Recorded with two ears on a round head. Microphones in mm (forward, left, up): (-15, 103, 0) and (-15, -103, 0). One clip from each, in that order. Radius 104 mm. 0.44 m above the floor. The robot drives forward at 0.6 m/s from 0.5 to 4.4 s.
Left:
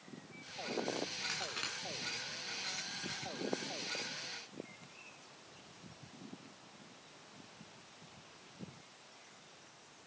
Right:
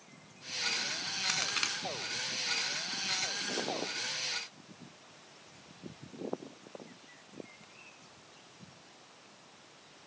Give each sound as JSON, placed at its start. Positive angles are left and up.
{"t": 1.3, "sound": "a crack", "side_deg": -50, "distance_m": 2.0}